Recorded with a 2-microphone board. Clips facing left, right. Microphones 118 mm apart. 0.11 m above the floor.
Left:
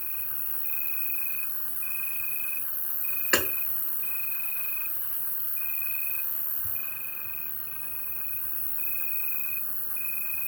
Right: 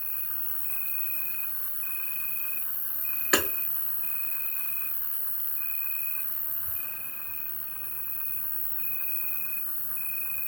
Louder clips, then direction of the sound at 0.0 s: Even; 75° left (ahead or behind).